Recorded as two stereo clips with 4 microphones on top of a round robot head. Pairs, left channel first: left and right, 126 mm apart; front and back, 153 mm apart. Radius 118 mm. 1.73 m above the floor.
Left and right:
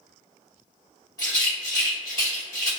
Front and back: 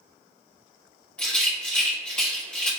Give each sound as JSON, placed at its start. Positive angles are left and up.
{"t": 1.2, "sound": "a rattle", "azimuth_deg": 65, "distance_m": 1.1}